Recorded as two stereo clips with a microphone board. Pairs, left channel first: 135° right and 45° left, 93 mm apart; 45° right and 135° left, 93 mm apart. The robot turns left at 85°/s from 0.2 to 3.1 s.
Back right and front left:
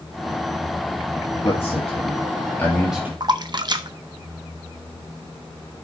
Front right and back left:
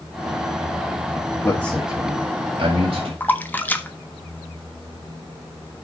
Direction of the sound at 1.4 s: 105° right.